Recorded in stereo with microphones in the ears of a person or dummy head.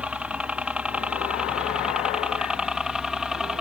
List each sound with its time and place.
0.0 s a helicopter: 10° right (ahead or behind)